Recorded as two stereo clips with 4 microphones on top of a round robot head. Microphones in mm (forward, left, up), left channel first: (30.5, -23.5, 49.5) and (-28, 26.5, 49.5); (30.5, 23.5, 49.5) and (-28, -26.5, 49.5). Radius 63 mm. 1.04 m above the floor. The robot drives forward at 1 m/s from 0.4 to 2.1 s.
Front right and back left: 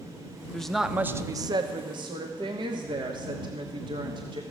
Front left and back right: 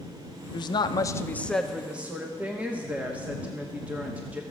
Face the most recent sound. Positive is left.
turn(degrees=150)